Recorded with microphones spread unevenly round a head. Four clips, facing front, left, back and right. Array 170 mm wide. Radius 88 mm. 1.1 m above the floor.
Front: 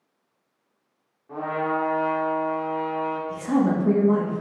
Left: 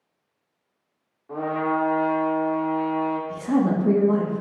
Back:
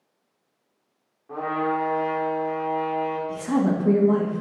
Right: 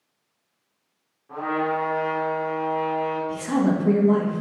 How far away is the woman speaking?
About 1.3 m.